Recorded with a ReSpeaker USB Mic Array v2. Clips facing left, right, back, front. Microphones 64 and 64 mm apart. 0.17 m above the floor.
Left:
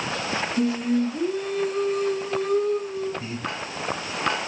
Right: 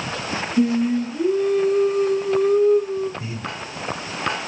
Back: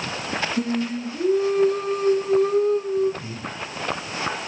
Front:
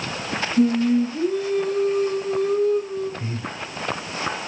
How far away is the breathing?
About 1.1 m.